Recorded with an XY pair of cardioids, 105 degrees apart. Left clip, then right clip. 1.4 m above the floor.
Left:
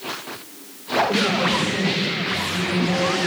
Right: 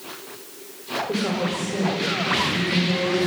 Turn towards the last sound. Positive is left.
turn(degrees=-25)